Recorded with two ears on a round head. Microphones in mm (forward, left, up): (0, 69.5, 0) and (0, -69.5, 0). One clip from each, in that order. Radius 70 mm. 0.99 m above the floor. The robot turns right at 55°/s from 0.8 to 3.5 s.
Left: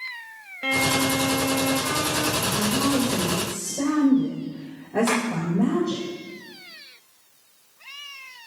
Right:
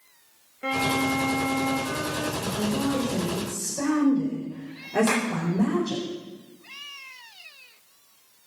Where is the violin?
65° left, 1.8 m; by 2.3 s 150° left, 1.8 m.